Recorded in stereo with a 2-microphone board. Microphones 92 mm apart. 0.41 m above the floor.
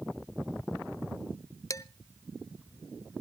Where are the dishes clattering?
35° left (ahead or behind), 0.7 m.